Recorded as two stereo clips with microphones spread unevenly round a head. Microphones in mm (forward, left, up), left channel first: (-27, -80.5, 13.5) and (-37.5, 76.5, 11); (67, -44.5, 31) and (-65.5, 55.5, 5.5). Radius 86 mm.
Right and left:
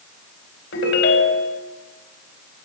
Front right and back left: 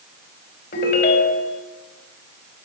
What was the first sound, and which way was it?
A ringtone, 75° right.